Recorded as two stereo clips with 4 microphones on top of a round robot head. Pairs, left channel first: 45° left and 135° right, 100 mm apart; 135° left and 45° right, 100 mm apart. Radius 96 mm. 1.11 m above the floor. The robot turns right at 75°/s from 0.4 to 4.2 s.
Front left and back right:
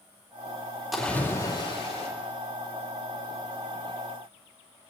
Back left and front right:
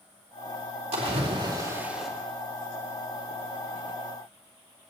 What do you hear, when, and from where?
0.9 s a splash: 45° right, 3.5 m; by 2.1 s 45° left, 3.5 m